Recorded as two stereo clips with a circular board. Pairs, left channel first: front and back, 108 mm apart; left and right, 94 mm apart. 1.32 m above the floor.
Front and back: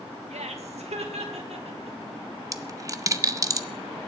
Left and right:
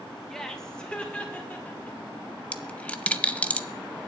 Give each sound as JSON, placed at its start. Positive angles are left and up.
{"t": 0.3, "sound": "laughter", "azimuth_deg": 175, "distance_m": 1.6}
{"t": 2.5, "sound": "a dropped coin", "azimuth_deg": 155, "distance_m": 0.6}